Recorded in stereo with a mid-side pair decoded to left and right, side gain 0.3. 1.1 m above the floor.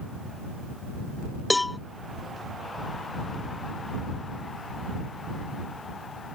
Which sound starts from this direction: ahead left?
A cowbell, at 1.5 s.